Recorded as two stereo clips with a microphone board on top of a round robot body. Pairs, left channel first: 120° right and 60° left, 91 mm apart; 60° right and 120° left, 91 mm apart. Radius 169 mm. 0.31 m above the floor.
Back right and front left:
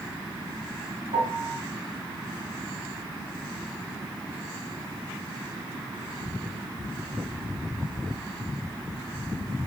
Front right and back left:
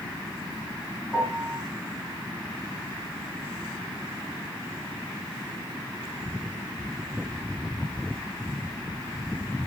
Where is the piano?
35° left, 9 m.